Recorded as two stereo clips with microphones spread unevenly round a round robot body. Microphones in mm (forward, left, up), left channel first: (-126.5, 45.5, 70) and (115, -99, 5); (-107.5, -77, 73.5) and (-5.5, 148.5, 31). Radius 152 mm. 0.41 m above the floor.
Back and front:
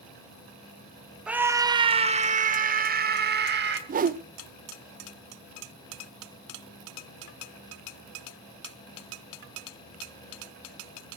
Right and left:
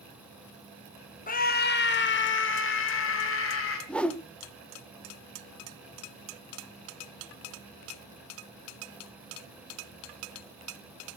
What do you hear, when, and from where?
1.3 s a scream: 85° right, 1.1 m; by 3.8 s 75° right, 2.5 m
3.9 s a whoosh: 20° right, 0.6 m